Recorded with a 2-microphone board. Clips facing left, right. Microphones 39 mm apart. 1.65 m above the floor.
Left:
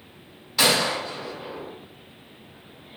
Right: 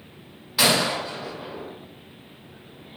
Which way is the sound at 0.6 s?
10° right (ahead or behind).